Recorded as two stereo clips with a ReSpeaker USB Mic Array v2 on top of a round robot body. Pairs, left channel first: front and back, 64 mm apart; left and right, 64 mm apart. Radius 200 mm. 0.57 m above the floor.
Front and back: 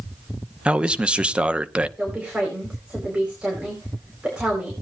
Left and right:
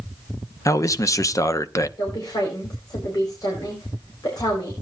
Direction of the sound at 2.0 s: 105° left.